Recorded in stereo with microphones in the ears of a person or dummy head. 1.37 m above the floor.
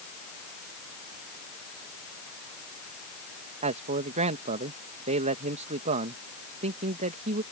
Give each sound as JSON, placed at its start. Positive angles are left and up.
{"t": 3.6, "sound": "a man speaking", "side_deg": -35}